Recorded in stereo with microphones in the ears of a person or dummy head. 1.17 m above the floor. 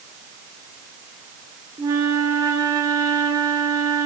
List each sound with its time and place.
1.8 s a flute: 15° right (ahead or behind), 0.5 m